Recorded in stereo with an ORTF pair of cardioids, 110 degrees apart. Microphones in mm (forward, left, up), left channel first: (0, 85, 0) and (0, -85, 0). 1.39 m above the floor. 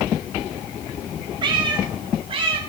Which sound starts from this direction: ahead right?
A cat meowing, at 1.4 s.